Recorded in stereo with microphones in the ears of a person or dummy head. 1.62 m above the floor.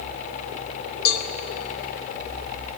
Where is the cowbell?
80° left, 1.3 m.